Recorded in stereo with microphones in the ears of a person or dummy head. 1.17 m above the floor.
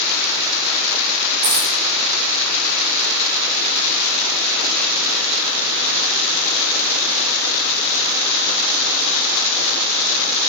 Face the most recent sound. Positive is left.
turn(degrees=-15)  # may be behind; listen again after turning